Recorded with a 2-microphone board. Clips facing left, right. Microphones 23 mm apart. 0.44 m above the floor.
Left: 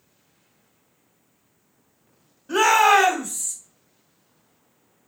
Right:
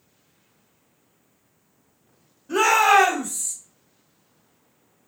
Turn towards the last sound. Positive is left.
turn(degrees=20)  # may be behind; listen again after turning